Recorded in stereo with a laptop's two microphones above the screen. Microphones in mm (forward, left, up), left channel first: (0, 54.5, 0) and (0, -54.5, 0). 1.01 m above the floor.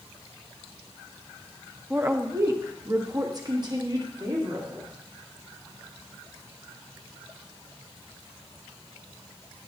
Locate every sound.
1.9 s a woman speaking: 15° right (ahead or behind), 0.6 m; by 4.9 s 45° right (ahead or behind), 2 m